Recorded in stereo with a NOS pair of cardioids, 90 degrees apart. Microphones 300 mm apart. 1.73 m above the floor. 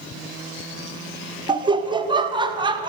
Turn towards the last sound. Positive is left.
turn(degrees=-15)